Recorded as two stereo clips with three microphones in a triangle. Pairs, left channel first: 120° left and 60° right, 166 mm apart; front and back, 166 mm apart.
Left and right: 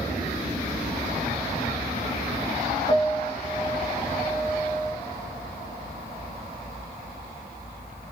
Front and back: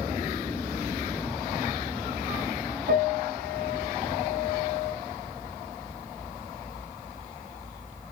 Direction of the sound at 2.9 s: Straight behind.